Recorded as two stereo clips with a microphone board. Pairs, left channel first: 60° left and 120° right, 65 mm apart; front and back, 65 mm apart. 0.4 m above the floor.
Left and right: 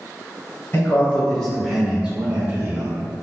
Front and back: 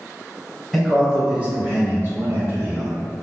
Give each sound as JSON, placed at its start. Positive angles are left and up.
{"t": 0.7, "sound": "a man speaking", "azimuth_deg": 100, "distance_m": 1.2}